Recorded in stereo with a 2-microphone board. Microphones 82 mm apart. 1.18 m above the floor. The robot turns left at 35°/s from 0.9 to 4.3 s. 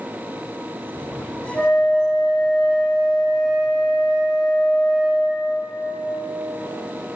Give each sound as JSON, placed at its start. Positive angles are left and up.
{"t": 1.5, "sound": "a flute", "azimuth_deg": 20, "distance_m": 5.5}